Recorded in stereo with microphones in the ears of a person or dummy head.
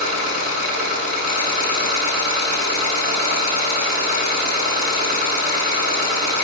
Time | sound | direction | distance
0.0 | an engine running | 50° right (ahead or behind) | 5.5 m